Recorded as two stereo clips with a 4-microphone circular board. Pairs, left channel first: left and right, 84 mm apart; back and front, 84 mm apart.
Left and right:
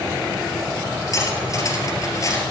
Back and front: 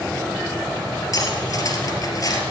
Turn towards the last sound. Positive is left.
turn(degrees=135)